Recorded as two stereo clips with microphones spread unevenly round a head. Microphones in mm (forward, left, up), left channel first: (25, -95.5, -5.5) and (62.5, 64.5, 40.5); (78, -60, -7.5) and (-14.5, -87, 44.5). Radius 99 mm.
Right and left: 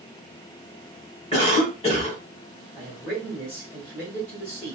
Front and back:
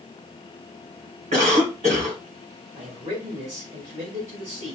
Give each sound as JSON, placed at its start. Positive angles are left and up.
{"t": 1.3, "sound": "a cough", "azimuth_deg": -160, "distance_m": 2.0}
{"t": 2.8, "sound": "a man speaking", "azimuth_deg": -160, "distance_m": 2.5}